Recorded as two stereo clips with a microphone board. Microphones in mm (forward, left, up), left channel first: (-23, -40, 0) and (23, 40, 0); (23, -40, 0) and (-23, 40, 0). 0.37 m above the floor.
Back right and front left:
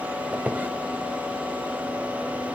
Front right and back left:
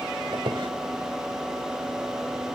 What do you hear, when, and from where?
0.3 s a squeak: 130° left, 0.8 m